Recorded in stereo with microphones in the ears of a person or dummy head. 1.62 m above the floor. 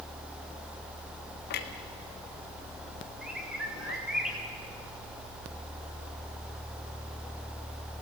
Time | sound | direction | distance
1.5 | a clunk | 50° left (ahead or behind) | 1.5 m
3.2 | a bird | 5° right (ahead or behind) | 3.5 m